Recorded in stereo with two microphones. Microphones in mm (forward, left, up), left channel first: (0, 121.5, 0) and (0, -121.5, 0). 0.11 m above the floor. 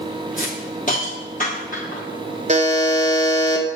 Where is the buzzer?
30° right (ahead or behind), 1.0 m.